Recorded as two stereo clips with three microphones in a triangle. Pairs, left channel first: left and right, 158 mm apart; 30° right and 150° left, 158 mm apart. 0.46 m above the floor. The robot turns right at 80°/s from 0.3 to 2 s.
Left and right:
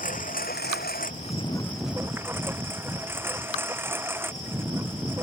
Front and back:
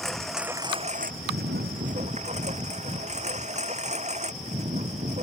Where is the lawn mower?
60° left; by 5.2 s 165° right.